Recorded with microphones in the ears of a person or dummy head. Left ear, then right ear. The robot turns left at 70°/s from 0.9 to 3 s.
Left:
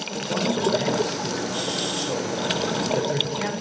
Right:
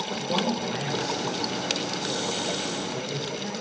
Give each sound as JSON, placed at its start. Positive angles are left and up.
{"t": 0.1, "sound": "a man speaking", "azimuth_deg": -155, "distance_m": 5.5}